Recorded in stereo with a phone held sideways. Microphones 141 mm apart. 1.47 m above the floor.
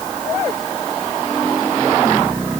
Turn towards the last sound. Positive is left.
No sound to turn to.